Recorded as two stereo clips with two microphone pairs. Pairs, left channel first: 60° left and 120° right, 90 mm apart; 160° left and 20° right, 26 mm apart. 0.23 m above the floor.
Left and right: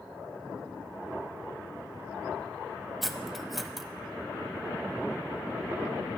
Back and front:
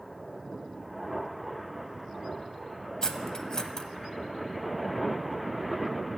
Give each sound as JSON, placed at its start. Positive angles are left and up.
{"t": 3.0, "sound": "cutlery clinking", "azimuth_deg": 145, "distance_m": 0.5}